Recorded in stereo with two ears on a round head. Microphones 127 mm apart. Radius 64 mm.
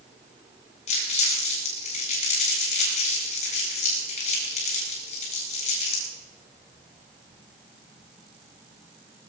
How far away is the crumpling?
About 10 m.